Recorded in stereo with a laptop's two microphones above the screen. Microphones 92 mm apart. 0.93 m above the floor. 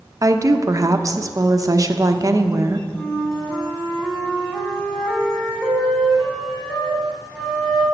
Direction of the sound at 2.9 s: 10° left (ahead or behind).